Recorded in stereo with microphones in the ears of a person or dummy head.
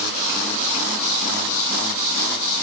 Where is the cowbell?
I don't hear a cowbell.